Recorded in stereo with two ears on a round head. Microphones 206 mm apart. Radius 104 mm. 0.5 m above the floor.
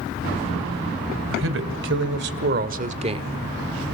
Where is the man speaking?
65° right (ahead or behind), 2.5 m; by 3.3 s 20° right (ahead or behind), 1.2 m.